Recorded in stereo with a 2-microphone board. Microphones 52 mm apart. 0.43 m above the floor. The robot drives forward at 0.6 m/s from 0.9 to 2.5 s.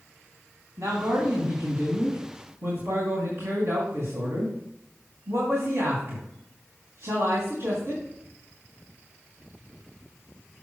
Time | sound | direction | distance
0.8 | a man speaking | 70° right (ahead or behind) | 2.5 m